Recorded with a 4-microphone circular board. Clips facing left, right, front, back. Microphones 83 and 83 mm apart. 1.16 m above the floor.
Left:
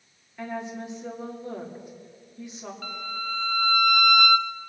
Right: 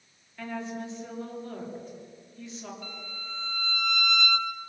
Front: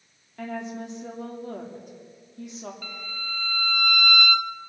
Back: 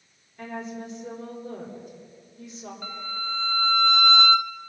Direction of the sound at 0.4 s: 15° left.